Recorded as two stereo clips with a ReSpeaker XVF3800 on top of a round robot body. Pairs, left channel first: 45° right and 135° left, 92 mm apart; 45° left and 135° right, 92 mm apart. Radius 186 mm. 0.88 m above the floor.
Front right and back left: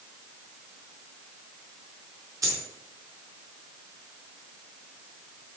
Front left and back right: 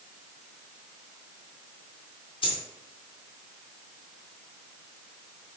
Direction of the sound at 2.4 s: 80° left.